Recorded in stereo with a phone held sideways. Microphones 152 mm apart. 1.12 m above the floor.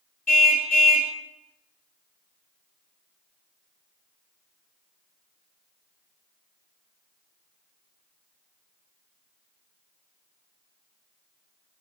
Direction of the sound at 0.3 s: 70° left (ahead or behind).